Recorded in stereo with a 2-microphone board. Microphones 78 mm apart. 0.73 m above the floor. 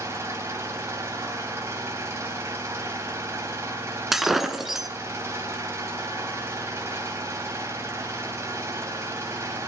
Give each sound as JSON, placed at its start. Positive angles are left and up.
{"t": 0.0, "sound": "an engine running", "side_deg": -35, "distance_m": 3.0}
{"t": 4.1, "sound": "breaking glass", "side_deg": -5, "distance_m": 1.2}